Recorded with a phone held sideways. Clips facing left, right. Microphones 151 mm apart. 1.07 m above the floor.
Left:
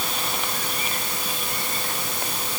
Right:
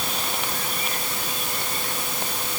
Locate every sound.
Only background noise.